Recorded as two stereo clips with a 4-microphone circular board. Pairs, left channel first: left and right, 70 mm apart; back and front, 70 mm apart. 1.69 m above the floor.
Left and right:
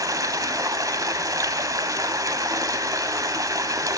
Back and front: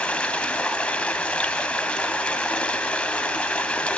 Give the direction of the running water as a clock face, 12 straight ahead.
4 o'clock.